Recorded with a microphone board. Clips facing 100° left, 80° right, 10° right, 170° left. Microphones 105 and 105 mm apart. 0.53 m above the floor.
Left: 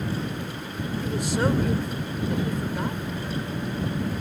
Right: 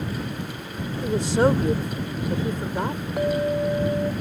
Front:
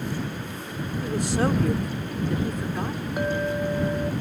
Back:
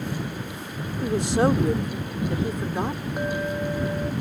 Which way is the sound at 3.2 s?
95° right.